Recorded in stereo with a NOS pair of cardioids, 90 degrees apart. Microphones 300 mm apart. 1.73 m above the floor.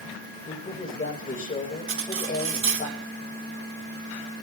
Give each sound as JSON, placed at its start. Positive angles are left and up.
{"t": 0.5, "sound": "a man speaking", "azimuth_deg": 30, "distance_m": 8.0}
{"t": 1.9, "sound": "cutlery clinking", "azimuth_deg": -45, "distance_m": 3.5}